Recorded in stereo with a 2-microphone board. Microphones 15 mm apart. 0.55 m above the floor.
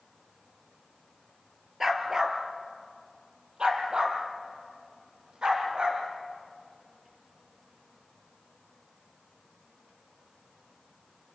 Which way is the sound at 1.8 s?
25° right (ahead or behind).